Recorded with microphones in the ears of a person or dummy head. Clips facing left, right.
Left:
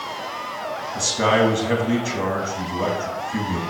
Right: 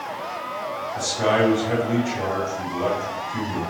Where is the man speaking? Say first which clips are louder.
Left 1 dB; 65° left (ahead or behind), 2.5 m.